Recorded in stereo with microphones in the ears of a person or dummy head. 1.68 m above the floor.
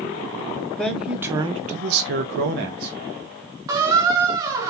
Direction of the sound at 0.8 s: 5° left (ahead or behind).